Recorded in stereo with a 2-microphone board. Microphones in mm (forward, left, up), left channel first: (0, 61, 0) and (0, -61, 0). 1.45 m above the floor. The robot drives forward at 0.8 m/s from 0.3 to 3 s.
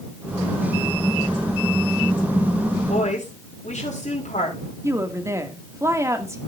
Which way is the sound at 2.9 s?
70° left (ahead or behind).